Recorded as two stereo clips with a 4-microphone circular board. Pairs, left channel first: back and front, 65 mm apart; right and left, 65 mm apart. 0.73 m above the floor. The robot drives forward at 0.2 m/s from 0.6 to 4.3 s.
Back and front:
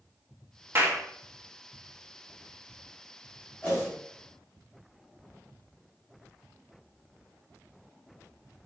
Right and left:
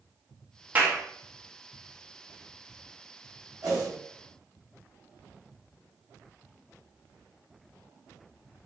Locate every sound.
0.8 s a clap: 35° left, 0.9 m; by 1.0 s 40° left, 0.9 m
3.6 s a whoosh: 115° left, 1.7 m